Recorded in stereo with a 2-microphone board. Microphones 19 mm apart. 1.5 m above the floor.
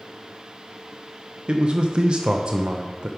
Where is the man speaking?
55° right (ahead or behind), 0.7 m.